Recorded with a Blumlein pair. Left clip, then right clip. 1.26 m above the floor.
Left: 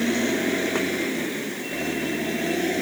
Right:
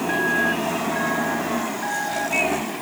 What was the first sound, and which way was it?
Only background noise.